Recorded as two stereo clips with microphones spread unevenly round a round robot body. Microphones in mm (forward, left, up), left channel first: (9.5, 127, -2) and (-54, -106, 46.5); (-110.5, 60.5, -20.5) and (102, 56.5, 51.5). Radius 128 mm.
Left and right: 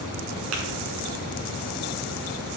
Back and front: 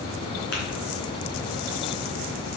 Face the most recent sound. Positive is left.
turn(degrees=-125)